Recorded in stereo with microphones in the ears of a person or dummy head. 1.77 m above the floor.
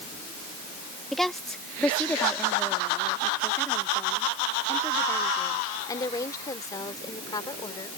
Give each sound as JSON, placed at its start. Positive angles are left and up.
{"t": 1.1, "sound": "a woman speaking", "side_deg": 0}